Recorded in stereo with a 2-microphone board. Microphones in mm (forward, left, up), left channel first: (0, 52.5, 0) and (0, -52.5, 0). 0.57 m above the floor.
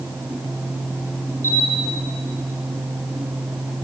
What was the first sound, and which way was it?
A camera shutter, 25° right (ahead or behind).